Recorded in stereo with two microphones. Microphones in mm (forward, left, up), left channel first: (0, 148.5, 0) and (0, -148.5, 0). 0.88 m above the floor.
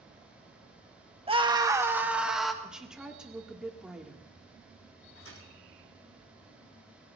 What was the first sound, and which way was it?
A scream, 20° right (ahead or behind).